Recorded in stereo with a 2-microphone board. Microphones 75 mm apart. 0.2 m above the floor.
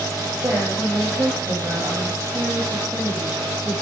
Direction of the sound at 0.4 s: 35° right (ahead or behind).